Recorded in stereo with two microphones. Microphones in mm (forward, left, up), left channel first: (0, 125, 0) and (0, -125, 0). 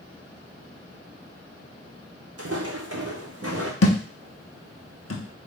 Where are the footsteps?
70° right (ahead or behind), 0.9 m; by 3.7 s 55° right (ahead or behind), 1.1 m.